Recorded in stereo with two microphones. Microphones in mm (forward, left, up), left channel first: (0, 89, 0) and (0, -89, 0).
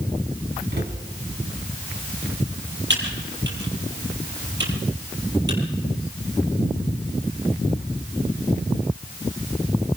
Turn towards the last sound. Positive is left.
turn(degrees=-90)